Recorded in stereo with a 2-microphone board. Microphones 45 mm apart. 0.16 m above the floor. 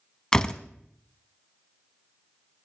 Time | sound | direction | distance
0.3 | a door slam | 15° left (ahead or behind) | 0.7 m